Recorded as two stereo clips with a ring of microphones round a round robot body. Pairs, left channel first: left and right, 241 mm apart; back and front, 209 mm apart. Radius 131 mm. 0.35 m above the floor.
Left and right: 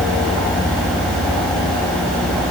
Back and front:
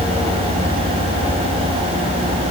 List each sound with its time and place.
Only background noise.